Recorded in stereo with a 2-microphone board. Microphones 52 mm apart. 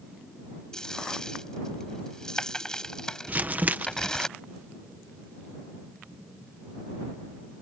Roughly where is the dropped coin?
Centre.